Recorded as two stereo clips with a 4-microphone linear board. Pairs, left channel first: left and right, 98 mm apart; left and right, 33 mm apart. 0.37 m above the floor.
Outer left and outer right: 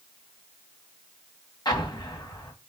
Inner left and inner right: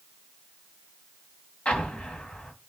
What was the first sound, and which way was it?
An explosion, 45° left (ahead or behind).